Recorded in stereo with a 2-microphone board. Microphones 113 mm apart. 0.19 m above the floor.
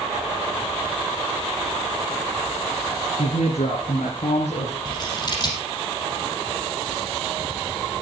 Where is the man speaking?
65° left (ahead or behind), 3 m; by 4.8 s 75° left (ahead or behind), 5 m.